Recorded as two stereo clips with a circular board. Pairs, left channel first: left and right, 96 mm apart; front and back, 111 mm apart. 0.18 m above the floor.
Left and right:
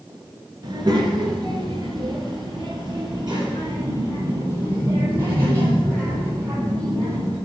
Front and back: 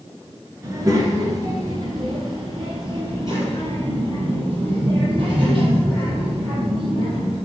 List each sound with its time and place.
0.6 s a child speaking: 125° right, 2 m; by 7.4 s 140° right, 5.5 m